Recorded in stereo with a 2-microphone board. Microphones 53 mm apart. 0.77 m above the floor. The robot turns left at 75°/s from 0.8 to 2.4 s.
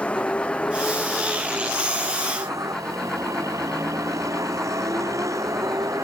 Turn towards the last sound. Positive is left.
turn(degrees=-85)